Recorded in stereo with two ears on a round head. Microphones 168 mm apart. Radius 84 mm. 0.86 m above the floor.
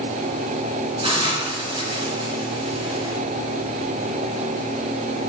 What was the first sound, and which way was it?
A hiss, 30° right (ahead or behind).